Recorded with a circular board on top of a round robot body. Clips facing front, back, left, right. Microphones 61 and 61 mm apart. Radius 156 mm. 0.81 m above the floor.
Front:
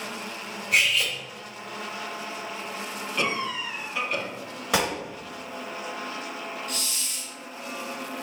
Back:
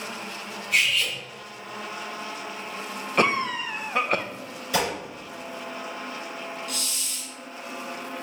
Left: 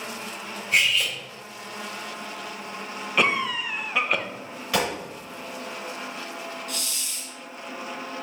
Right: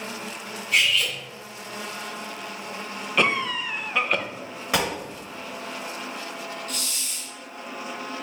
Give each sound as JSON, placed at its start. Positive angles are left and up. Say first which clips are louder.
{"t": 0.7, "sound": "cutlery clinking", "louder": "front 1 dB, even", "azimuth_deg": 35, "distance_m": 2.0}
{"t": 3.2, "sound": "a cough", "louder": "back 5 dB, even", "azimuth_deg": 180, "distance_m": 0.6}
{"t": 4.7, "sound": "a gunshot", "louder": "front 1 dB, even", "azimuth_deg": -20, "distance_m": 1.7}
{"t": 6.7, "sound": "a hiss", "louder": "even, right 1 dB", "azimuth_deg": -45, "distance_m": 1.9}